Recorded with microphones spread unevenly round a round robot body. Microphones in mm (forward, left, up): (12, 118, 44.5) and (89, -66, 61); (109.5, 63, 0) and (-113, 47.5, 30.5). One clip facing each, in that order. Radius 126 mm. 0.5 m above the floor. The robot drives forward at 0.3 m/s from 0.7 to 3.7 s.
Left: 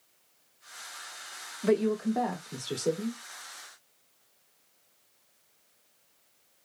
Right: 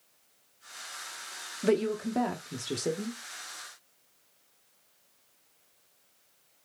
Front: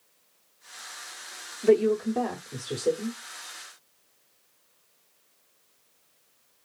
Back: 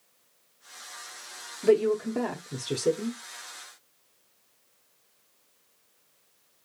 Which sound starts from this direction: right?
A woman speaking, at 1.6 s.